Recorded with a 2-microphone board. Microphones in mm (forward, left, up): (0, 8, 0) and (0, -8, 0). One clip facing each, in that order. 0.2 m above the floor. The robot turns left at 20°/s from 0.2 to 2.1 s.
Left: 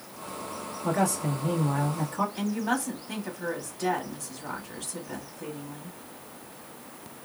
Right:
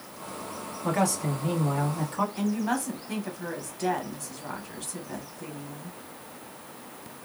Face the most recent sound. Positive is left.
turn(degrees=5)  # may be behind; listen again after turning